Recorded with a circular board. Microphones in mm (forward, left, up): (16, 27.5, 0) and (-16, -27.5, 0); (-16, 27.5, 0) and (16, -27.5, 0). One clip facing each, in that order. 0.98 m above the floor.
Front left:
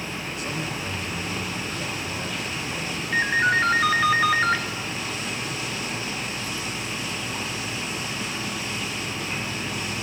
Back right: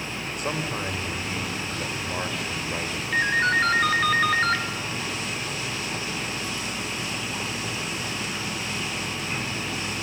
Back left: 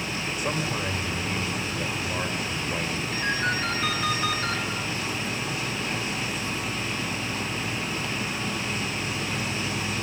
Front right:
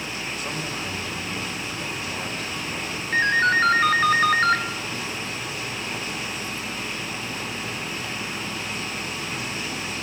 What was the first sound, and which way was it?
A man speaking, 160° right.